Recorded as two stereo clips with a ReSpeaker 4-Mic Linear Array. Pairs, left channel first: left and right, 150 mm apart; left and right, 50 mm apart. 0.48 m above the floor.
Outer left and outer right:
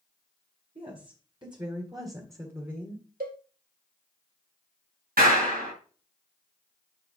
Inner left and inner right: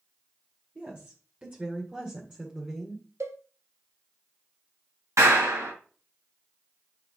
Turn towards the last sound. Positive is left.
turn(degrees=-80)